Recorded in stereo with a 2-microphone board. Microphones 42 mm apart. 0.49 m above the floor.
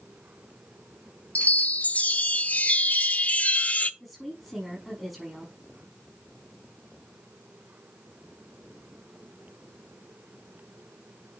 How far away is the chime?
About 0.8 m.